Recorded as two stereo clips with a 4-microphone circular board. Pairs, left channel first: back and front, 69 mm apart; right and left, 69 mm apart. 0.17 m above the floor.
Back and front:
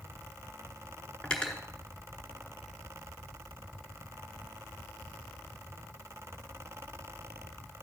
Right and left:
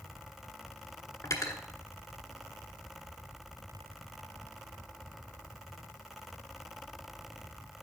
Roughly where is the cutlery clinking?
Right.